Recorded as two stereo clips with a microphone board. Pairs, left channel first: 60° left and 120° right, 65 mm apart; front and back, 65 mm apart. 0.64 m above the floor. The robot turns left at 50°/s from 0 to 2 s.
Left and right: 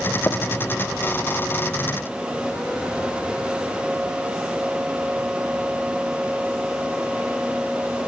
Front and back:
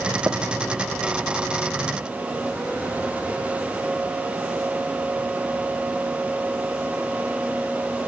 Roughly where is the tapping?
Behind left.